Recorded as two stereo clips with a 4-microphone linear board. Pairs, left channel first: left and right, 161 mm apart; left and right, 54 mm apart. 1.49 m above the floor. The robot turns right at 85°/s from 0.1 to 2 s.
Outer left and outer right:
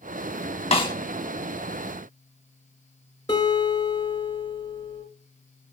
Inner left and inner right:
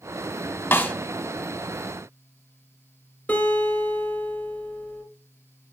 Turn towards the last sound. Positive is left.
turn(degrees=25)  # may be behind; listen again after turning